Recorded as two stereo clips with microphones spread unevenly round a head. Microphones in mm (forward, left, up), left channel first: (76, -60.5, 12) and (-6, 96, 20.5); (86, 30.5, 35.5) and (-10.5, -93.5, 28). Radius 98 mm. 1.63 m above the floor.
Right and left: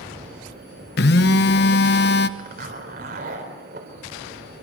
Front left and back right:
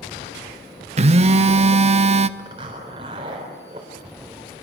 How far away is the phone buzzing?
About 0.8 m.